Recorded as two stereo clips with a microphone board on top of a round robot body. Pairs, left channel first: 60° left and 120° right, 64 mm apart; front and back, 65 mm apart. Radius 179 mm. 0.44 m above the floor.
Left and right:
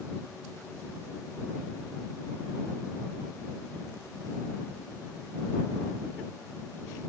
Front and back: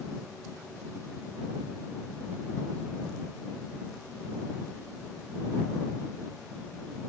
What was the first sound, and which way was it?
Only background noise.